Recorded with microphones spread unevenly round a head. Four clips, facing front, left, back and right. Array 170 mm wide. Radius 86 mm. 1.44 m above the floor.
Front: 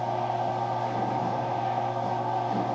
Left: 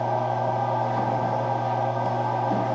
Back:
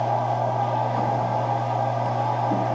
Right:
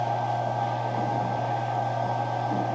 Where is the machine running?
150° left, 4.5 m.